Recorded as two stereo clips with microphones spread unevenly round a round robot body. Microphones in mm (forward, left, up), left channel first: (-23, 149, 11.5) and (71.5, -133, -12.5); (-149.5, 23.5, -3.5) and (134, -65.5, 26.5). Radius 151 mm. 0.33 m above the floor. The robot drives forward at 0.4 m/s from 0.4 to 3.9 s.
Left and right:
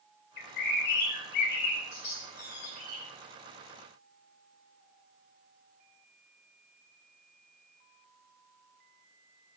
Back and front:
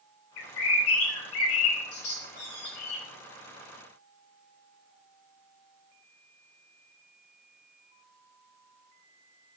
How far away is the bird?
About 4.5 m.